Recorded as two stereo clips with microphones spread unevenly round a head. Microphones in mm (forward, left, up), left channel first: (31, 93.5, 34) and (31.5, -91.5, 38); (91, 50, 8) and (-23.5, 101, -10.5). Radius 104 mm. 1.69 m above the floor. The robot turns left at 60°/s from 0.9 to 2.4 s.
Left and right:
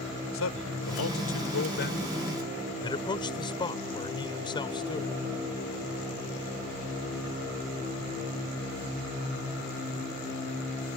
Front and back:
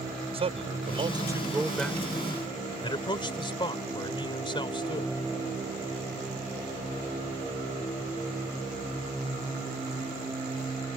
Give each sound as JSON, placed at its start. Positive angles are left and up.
{"t": 0.3, "sound": "a man speaking", "azimuth_deg": 115}